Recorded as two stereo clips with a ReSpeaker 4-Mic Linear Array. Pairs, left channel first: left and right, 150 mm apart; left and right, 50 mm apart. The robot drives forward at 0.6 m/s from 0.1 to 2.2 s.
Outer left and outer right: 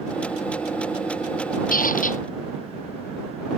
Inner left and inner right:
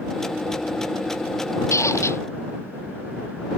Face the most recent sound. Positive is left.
turn(degrees=65)  # may be behind; listen again after turning